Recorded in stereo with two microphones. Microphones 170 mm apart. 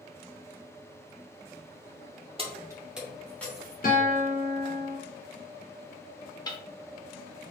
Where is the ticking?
25° left (ahead or behind), 0.7 m.